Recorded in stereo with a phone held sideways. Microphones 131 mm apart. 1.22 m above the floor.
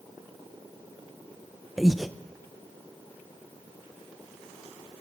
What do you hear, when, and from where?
1.8 s breathing: centre (ahead or behind), 1.0 m